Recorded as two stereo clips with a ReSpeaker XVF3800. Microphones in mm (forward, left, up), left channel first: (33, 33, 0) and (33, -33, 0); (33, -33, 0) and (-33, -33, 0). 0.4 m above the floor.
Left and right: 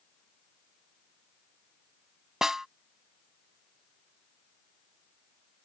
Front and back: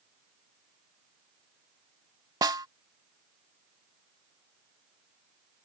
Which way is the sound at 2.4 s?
170° right.